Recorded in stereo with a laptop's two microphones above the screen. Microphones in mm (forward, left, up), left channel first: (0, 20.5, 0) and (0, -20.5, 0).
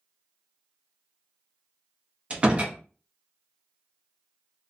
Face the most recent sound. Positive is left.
turn(degrees=-30)  # may be behind; listen again after turning